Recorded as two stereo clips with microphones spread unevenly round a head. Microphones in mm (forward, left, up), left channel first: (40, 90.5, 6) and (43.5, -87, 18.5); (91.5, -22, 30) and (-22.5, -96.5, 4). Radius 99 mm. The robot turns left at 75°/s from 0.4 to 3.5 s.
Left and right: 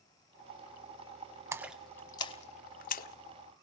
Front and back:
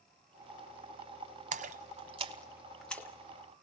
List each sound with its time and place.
1.5 s a splash: 155° right, 0.9 m; by 3.1 s 90° left, 0.9 m